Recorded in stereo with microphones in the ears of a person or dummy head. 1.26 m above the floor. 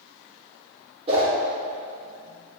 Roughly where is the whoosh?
Right.